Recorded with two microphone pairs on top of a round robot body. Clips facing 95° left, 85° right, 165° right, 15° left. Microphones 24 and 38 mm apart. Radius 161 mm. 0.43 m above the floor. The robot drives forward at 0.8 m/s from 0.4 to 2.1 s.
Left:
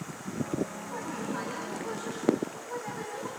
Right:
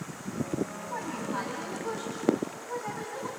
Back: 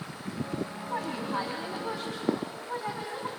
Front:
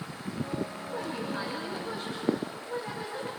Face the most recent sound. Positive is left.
turn(degrees=-160)